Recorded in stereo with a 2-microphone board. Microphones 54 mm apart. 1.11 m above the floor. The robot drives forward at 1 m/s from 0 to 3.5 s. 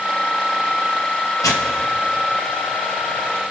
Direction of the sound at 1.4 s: 80° left.